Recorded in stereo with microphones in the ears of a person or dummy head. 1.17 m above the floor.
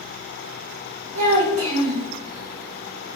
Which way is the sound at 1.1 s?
70° right (ahead or behind).